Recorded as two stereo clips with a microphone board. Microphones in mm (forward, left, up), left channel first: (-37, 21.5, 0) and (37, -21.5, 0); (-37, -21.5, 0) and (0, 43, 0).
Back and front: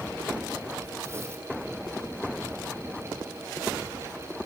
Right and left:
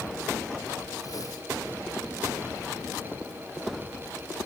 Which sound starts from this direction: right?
Tearing paper, at 1.0 s.